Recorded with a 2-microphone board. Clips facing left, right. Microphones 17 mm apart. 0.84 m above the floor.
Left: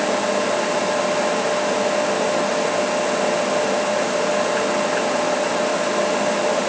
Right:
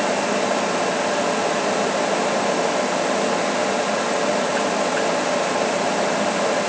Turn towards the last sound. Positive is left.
No sound to turn to.